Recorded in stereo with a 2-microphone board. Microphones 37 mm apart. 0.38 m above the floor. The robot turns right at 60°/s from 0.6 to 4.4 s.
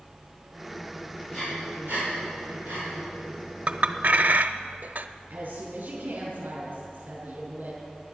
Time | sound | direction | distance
1.3 | breathing | 5° right (ahead or behind) | 6.5 m
3.7 | a clink | 35° right (ahead or behind) | 0.6 m
5.3 | a woman speaking | 50° right (ahead or behind) | 5 m